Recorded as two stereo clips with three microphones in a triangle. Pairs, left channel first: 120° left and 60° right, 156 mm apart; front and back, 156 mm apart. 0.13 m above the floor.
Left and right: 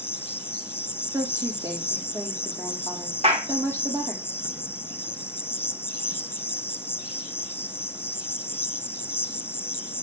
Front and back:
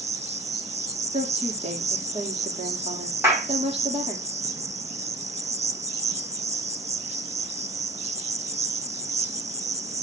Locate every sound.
0.0 s an insect: 170° right, 0.8 m
1.1 s a woman speaking: 130° right, 5.5 m
3.2 s a clap: 105° right, 7 m